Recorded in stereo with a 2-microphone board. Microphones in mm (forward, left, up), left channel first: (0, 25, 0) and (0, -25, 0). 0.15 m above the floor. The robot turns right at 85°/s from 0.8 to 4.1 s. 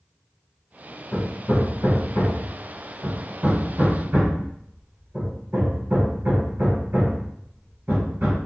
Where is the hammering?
35° left (ahead or behind), 1.6 m; by 8.4 s 55° right (ahead or behind), 1.6 m.